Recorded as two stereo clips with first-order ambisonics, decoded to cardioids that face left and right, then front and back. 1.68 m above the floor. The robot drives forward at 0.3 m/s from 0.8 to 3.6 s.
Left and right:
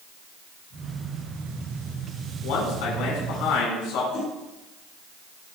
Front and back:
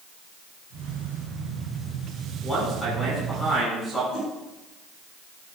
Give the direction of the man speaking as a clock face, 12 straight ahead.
10 o'clock.